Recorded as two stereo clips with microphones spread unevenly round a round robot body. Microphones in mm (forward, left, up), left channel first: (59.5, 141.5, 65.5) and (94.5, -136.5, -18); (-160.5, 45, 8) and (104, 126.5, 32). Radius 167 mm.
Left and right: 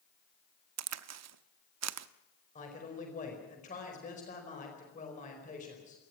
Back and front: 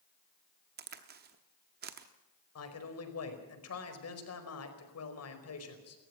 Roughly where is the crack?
Ahead right.